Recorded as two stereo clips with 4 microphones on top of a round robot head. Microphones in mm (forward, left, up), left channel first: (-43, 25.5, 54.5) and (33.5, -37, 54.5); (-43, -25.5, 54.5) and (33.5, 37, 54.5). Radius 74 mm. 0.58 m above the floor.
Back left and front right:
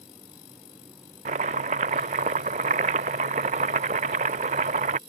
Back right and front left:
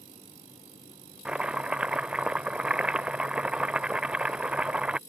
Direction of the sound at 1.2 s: 45° right.